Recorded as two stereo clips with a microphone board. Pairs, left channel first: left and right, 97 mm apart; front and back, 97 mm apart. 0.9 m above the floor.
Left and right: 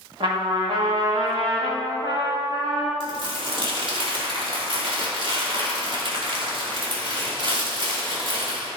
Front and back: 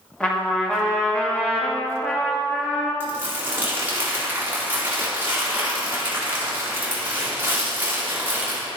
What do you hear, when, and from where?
0.2 s a trumpet: 75° right, 1.9 m
3.0 s crumpling: 110° right, 3 m